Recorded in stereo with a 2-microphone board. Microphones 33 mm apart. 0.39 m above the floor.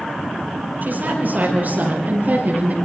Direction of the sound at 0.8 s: 65° right (ahead or behind).